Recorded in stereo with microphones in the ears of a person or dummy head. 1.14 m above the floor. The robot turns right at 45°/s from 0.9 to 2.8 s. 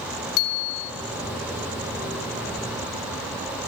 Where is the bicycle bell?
75° left (ahead or behind), 2 m.